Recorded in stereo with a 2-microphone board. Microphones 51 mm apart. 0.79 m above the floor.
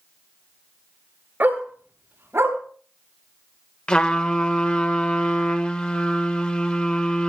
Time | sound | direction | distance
1.4 | a dog barking | 40° right (ahead or behind) | 6 m
3.9 | a trumpet | 20° left (ahead or behind) | 1.7 m